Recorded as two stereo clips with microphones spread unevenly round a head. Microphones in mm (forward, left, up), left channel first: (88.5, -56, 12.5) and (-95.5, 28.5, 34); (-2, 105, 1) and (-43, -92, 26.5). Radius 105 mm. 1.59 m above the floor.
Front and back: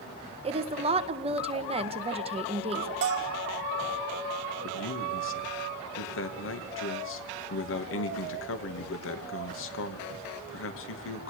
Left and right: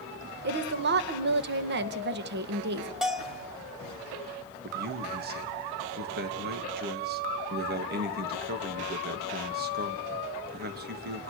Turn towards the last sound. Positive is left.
turn(degrees=-50)